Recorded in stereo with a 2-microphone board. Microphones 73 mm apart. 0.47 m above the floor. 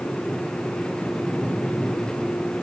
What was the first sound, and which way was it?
Only background noise.